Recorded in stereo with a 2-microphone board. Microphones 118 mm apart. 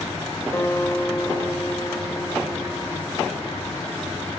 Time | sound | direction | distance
0.5 | a guitar | 25° left (ahead or behind) | 1.1 m